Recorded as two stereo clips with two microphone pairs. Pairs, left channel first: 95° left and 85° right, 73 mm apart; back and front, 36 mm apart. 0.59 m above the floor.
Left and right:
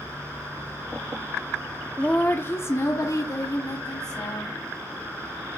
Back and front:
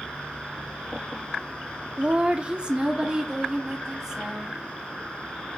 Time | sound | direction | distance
2.0 | a woman speaking | 25° left | 0.9 m